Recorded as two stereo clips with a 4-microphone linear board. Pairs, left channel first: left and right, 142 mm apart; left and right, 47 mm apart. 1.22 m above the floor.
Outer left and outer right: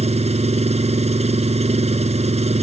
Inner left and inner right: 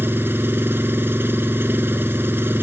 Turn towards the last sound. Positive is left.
turn(degrees=-45)  # may be behind; listen again after turning